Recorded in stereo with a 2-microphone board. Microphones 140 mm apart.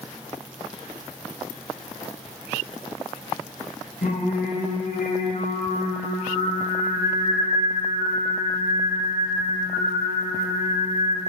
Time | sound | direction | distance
4.0 | singing | 80° left | 4.5 m